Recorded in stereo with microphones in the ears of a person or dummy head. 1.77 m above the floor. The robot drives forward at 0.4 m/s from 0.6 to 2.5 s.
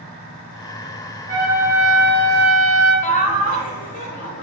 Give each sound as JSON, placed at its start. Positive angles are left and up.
{"t": 1.3, "sound": "a trumpet", "side_deg": -15, "distance_m": 1.3}
{"t": 3.0, "sound": "laughter", "side_deg": 40, "distance_m": 0.6}